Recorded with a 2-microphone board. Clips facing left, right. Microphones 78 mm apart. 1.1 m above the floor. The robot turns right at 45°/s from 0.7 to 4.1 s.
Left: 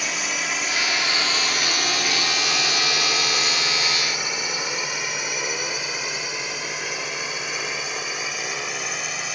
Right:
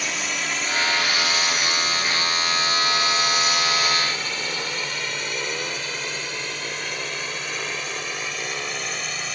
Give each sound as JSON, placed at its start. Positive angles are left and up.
{"t": 0.0, "sound": "a drone", "side_deg": 0}